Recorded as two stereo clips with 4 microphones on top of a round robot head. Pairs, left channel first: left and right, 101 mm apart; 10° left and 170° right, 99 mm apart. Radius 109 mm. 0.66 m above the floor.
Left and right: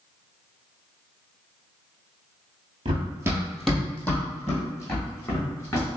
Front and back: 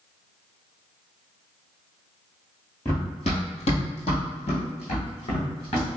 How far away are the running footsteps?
About 0.9 m.